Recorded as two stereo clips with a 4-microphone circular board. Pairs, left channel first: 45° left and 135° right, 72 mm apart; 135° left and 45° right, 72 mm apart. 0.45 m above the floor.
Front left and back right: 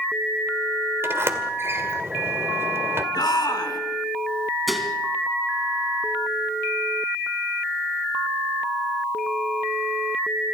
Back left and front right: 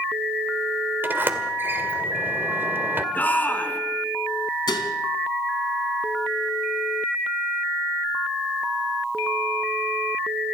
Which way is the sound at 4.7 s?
135° left.